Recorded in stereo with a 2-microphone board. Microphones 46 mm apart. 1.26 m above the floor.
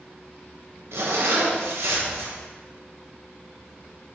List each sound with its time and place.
0.9 s a zipper: 75° right (ahead or behind), 1.1 m